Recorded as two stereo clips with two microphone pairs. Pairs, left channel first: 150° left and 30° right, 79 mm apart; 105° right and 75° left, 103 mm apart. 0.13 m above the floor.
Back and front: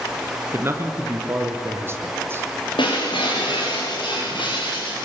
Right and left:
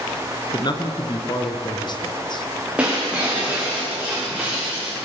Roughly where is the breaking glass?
Behind left.